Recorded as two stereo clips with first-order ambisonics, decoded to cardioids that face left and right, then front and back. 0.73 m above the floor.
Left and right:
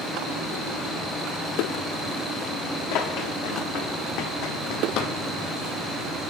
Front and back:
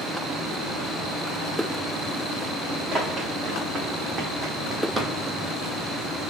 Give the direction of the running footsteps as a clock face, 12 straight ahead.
8 o'clock.